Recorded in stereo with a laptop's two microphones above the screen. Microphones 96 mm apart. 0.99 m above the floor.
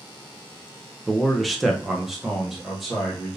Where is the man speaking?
Centre (ahead or behind), 0.5 m.